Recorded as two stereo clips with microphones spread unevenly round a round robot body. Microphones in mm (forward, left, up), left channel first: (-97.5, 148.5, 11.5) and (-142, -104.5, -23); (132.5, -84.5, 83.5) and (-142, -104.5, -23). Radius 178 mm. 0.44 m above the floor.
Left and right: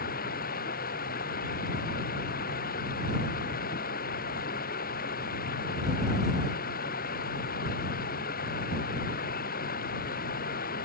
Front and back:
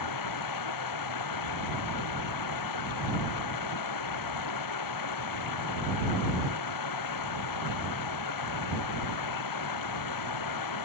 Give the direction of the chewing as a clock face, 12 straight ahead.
No chewing in this recording.